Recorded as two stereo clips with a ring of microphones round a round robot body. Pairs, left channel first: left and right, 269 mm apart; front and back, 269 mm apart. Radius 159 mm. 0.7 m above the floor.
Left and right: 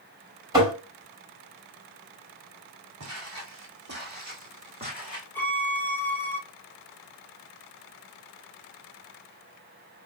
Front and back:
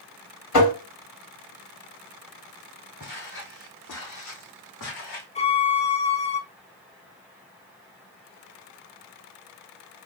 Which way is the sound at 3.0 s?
60° right.